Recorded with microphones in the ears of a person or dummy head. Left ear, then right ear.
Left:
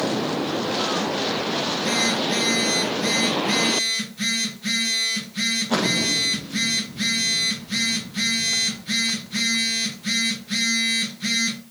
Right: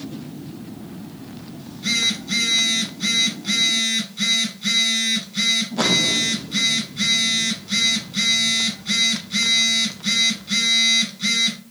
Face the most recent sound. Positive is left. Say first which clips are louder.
# right 4 dB
turn(degrees=-40)  # may be behind; listen again after turning